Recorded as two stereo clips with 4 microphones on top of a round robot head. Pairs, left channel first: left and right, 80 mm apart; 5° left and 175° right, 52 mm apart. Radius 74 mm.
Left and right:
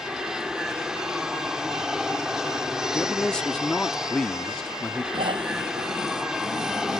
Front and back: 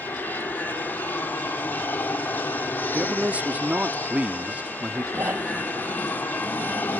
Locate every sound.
0.0 s an aircraft: 10° right
2.9 s a man speaking: 160° left
5.1 s snoring: 110° right